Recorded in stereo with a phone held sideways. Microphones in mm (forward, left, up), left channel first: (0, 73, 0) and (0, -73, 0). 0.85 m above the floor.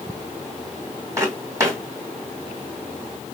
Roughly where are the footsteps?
Right.